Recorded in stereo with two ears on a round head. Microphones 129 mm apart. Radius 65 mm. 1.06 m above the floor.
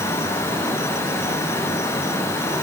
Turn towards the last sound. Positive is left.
No sound to turn to.